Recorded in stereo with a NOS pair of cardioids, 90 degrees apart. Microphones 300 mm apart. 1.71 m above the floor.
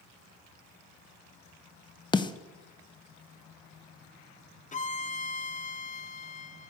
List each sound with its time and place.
2.1 s a snare drum: 15° left, 0.9 m
4.7 s a violin: 25° left, 0.9 m